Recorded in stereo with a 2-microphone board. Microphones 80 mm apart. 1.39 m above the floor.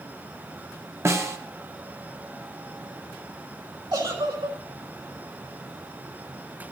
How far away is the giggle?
About 2.5 m.